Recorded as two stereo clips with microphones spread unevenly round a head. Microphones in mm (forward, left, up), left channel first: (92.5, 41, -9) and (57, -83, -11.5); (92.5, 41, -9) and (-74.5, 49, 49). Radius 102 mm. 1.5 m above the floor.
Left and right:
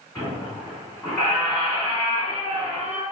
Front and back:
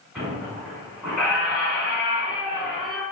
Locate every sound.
0.1 s a squeak: 140° left, 1.5 m